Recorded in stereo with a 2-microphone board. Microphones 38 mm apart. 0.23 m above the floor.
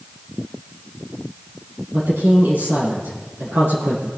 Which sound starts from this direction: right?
A woman speaking, at 1.9 s.